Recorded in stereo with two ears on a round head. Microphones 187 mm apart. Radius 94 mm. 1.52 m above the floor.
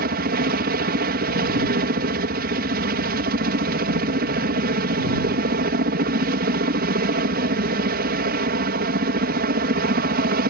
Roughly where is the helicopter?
Right.